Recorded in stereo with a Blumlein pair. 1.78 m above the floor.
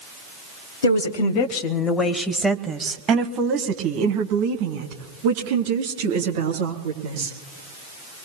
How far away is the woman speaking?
About 1.3 m.